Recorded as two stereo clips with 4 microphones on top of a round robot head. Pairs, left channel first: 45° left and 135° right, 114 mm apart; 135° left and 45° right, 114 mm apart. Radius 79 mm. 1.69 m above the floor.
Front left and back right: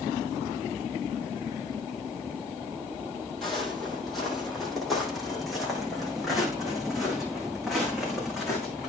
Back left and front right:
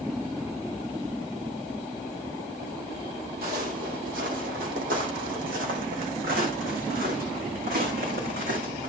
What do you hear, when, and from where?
3.4 s footsteps: 45° right, 3 m